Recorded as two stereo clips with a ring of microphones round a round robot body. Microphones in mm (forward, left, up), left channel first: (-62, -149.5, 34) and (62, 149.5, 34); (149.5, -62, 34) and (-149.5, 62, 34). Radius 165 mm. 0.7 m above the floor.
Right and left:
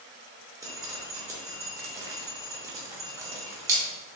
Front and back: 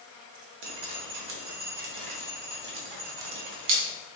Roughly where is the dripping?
Behind left.